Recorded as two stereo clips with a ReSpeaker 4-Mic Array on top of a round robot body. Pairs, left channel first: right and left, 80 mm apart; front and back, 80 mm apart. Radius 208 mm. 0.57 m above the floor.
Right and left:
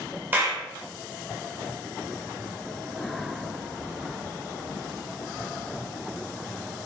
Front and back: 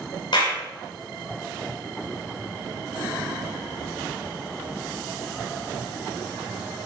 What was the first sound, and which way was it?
A clap, 25° left.